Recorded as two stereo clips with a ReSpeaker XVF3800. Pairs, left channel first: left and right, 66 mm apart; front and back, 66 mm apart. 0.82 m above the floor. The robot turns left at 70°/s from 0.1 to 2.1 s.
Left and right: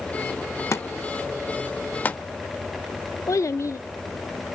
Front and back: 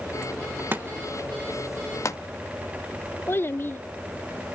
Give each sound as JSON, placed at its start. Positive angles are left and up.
{"t": 0.7, "sound": "a thud", "azimuth_deg": 125, "distance_m": 0.8}
{"t": 3.3, "sound": "a child speaking", "azimuth_deg": 50, "distance_m": 0.5}